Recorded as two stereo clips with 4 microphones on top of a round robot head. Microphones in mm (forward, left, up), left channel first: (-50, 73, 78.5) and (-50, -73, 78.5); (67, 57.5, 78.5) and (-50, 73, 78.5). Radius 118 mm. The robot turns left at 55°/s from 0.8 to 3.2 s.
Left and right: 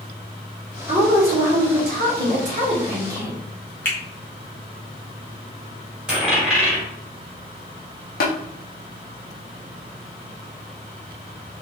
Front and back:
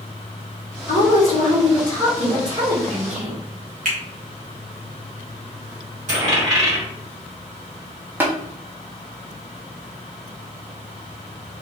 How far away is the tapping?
About 0.7 m.